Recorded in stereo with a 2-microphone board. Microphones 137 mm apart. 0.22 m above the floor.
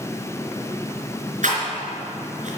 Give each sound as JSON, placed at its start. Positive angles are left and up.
{"t": 1.4, "sound": "a rattle", "side_deg": -65, "distance_m": 3.5}